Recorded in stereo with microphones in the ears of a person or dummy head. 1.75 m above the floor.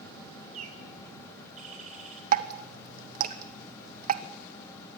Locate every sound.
0.5 s a bird: 40° right (ahead or behind), 5.5 m
2.3 s dripping: 50° right (ahead or behind), 1.2 m